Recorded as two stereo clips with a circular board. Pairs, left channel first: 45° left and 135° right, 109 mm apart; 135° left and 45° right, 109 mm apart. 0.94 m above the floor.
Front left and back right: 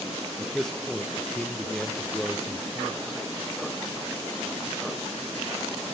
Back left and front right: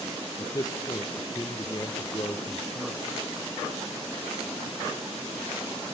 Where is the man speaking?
130° left, 0.6 m.